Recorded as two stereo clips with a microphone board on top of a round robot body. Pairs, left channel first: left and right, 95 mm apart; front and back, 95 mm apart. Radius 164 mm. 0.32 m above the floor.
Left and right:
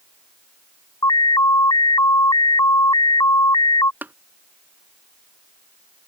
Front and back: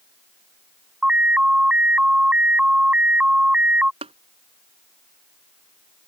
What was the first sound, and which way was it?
An alarm, 105° left.